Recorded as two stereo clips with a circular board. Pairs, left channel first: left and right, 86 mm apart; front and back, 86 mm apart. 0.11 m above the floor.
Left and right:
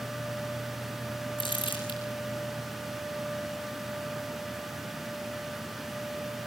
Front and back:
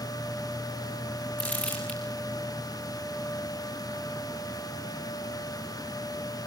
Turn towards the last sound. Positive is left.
turn(degrees=75)